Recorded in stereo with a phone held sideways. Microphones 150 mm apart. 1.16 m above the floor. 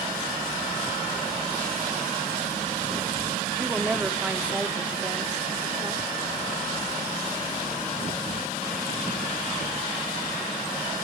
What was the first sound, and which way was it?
A woman speaking, 10° right (ahead or behind).